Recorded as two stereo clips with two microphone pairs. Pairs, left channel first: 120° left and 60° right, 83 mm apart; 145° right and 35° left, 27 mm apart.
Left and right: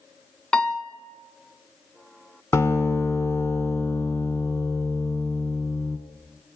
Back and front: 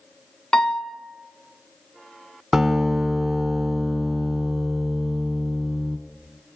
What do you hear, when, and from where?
0.5 s a piano: 170° right, 0.9 m
2.5 s a guitar: 115° left, 1.5 m